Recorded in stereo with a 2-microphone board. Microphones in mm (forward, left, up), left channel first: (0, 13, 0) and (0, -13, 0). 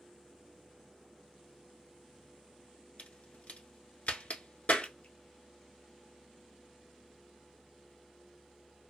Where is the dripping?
50° left (ahead or behind), 0.5 m.